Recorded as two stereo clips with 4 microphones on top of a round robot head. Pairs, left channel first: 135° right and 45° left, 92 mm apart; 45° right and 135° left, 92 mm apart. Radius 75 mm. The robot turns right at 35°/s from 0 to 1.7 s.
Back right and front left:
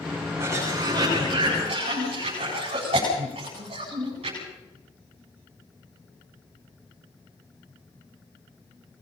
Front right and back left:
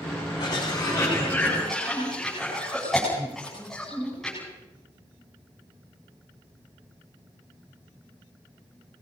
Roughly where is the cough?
Ahead.